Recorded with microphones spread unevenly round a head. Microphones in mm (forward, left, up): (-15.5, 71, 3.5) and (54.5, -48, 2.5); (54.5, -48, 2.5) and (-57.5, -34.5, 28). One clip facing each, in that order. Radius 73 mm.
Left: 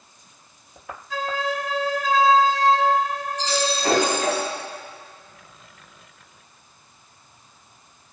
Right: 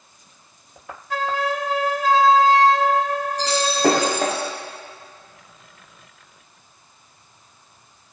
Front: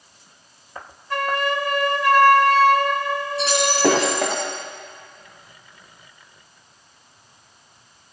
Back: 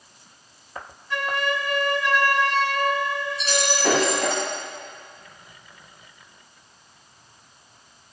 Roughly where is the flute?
Ahead right.